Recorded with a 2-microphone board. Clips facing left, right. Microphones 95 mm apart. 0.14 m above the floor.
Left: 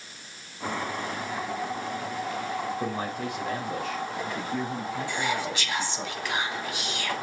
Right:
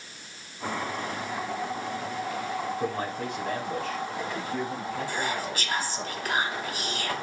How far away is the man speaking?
About 3.5 m.